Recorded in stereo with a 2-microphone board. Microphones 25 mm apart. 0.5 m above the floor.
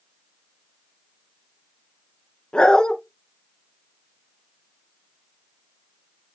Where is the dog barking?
45° left (ahead or behind), 2.5 m.